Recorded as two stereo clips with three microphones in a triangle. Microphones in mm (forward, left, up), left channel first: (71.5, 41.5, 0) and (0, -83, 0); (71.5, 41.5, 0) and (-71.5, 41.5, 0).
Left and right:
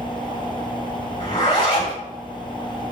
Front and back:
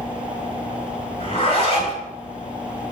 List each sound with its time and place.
1.2 s a zipper: 25° left, 2 m